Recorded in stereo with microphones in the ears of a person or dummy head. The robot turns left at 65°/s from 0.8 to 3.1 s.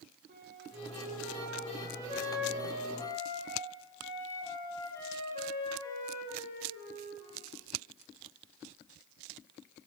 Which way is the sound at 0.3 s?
45° right.